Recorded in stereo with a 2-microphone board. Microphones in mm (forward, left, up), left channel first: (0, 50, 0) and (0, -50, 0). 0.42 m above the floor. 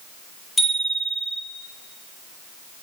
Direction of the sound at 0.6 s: Centre (ahead or behind).